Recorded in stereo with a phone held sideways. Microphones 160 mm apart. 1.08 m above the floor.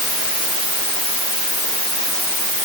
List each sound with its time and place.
Only background noise.